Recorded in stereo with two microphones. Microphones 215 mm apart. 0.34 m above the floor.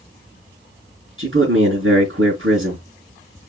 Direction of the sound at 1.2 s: 70° right (ahead or behind).